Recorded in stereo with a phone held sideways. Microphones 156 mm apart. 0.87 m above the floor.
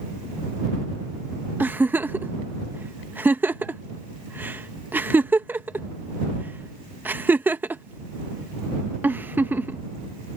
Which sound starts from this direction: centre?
A giggle, at 1.6 s.